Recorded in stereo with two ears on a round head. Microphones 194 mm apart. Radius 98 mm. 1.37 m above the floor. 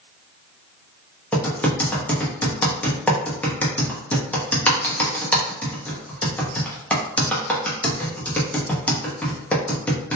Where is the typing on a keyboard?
5° left (ahead or behind), 0.8 m.